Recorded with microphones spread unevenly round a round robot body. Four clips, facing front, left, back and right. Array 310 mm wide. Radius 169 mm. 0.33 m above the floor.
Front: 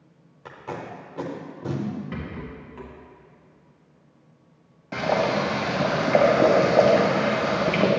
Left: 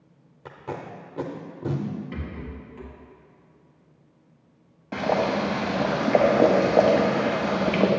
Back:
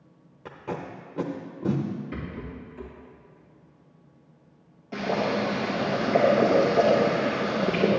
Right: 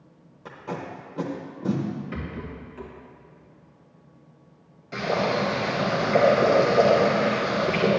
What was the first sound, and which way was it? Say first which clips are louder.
Tape being pulled: right 1 dB, even; 150° left.